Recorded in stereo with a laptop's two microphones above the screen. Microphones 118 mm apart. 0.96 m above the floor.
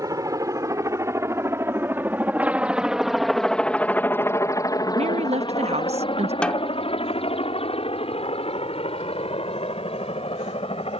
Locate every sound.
0.0 s a helicopter: 30° right (ahead or behind); by 11.0 s 55° left (ahead or behind)
5.0 s a woman speaking: 65° right (ahead or behind)
6.4 s a snare drum: 10° left (ahead or behind)